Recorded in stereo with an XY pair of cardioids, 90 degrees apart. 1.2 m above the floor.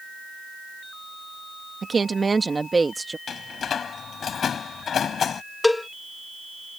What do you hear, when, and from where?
1.8 s a woman speaking: 35° right; by 3.2 s 15° right
3.3 s a door slam: 60° left
5.6 s a cowbell: 15° left